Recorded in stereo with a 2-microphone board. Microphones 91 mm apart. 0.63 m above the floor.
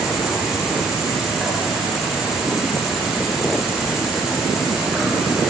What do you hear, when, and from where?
0.0 s an insect: 5° right (ahead or behind), 4 m